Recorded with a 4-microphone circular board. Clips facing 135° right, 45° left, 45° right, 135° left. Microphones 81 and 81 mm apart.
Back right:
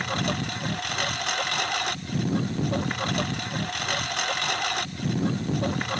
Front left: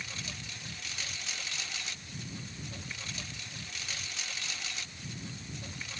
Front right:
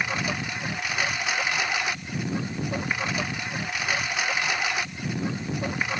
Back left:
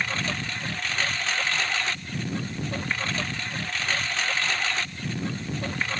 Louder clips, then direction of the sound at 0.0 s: Back right 16 dB, front right 1 dB; 125° right.